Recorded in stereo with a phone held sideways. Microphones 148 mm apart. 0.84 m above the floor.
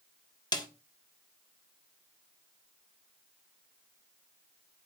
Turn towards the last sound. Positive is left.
turn(degrees=30)  # may be behind; listen again after turning